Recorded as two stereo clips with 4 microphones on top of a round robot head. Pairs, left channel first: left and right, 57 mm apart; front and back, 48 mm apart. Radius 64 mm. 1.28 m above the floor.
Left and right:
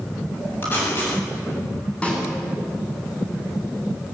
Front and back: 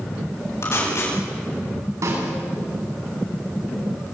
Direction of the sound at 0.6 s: 30° left.